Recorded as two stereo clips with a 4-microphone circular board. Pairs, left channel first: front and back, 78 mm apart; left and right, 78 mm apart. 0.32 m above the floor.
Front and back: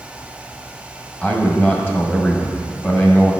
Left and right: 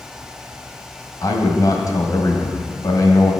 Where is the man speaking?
60° left, 1.5 m.